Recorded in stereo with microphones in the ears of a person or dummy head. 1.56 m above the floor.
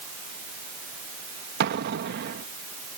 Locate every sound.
1.6 s an explosion: 55° right (ahead or behind)